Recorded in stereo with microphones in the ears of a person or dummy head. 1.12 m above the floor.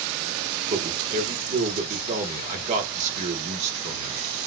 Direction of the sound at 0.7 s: 40° right (ahead or behind).